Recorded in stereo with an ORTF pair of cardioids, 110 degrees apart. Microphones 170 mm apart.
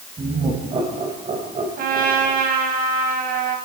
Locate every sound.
0.2 s laughter: 30° right, 7.5 m; by 2.5 s 50° right, 5 m
1.8 s a trumpet: 60° right, 7 m